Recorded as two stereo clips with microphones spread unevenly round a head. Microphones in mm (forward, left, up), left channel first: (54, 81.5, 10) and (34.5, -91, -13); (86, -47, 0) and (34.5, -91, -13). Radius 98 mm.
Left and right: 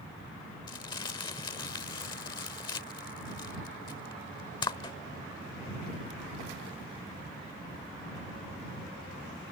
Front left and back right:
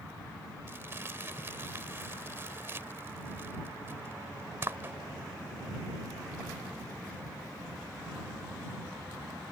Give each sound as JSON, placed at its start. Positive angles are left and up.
{"t": 0.7, "sound": "crumpling", "azimuth_deg": 145}